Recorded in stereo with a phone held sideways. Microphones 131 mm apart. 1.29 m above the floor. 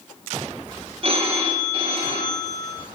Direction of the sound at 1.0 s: 45° right (ahead or behind).